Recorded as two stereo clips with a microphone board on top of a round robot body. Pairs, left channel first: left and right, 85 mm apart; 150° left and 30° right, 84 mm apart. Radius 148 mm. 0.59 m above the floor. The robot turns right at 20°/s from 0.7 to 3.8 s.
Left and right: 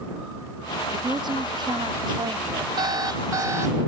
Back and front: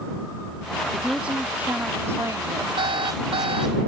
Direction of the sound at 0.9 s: 115° right.